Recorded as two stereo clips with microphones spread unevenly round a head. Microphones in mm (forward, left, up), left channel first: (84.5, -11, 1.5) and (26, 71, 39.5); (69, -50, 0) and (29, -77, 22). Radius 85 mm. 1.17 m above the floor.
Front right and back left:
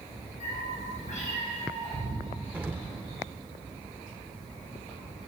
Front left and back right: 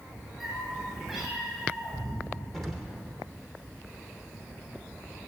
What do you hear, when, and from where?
0.4 s a cat meowing: 65° right, 6 m; by 2.3 s 50° right, 6.5 m
2.5 s an explosion: 160° left, 0.9 m